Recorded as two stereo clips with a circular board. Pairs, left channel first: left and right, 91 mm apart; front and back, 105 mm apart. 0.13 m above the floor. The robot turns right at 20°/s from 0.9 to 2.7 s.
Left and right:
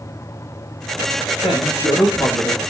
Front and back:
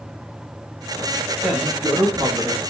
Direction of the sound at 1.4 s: 100° left.